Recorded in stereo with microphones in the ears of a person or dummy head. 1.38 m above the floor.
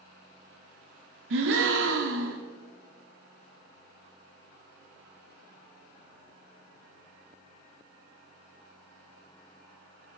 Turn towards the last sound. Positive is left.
turn(degrees=-65)  # may be behind; listen again after turning